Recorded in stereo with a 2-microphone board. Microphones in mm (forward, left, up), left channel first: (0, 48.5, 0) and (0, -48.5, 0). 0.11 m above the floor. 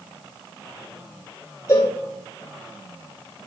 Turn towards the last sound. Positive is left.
turn(degrees=30)  # may be behind; listen again after turning